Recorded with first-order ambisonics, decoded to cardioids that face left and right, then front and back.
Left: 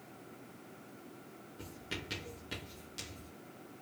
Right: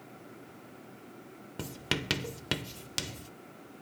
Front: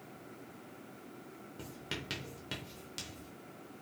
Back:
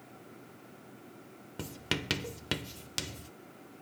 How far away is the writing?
About 0.5 m.